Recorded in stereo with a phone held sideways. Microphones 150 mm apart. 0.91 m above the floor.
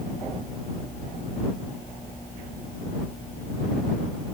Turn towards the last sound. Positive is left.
No sound to turn to.